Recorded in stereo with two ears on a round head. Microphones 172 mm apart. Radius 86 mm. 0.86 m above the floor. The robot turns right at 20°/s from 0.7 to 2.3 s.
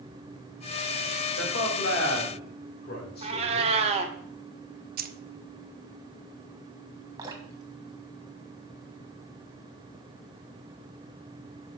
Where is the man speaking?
75° left (ahead or behind), 3 m; by 3.7 s 55° left (ahead or behind), 3 m.